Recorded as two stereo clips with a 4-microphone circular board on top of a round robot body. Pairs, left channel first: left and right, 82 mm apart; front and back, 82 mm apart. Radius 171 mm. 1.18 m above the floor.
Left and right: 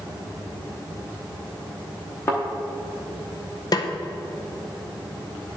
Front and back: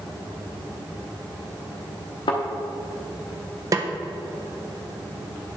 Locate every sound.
2.3 s a thud: 30° left, 0.7 m
3.7 s a snare drum: 130° left, 0.5 m